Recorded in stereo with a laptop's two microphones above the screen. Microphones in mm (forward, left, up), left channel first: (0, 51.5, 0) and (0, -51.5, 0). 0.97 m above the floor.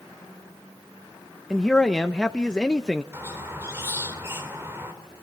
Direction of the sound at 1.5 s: 5° left (ahead or behind).